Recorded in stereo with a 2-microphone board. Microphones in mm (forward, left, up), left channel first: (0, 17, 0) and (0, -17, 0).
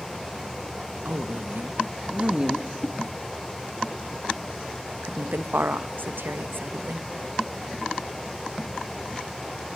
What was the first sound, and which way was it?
A woman speaking, 65° right (ahead or behind).